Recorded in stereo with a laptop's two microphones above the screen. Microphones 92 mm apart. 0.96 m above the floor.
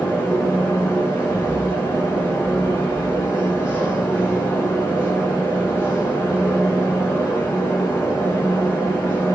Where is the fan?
25° left (ahead or behind), 2 m.